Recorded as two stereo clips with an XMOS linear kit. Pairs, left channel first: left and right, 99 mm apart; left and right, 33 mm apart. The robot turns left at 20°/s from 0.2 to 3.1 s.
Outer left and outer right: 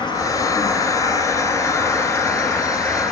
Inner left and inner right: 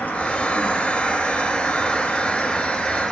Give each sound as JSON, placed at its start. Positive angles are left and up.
{"t": 0.0, "sound": "an insect", "azimuth_deg": 60, "distance_m": 6.0}